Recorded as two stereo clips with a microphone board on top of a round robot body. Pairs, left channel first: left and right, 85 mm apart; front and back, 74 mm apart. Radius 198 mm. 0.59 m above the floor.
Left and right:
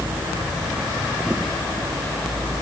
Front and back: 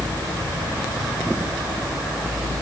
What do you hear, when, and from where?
Only background noise.